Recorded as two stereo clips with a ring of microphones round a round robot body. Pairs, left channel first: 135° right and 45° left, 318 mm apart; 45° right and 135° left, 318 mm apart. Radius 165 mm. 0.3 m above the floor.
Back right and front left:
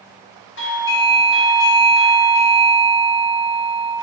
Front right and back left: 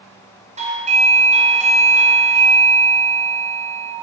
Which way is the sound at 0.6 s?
165° right.